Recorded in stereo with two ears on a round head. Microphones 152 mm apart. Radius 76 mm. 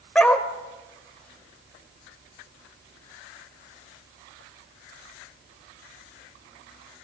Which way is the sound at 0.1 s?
5° left (ahead or behind).